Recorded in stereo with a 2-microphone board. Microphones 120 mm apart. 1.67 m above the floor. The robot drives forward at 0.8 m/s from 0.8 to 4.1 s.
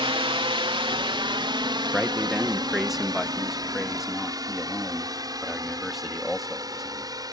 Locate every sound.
0.0 s a drone: 45° right (ahead or behind); by 7.3 s 30° right (ahead or behind)
1.9 s a man speaking: 5° right (ahead or behind); by 7.1 s centre (ahead or behind)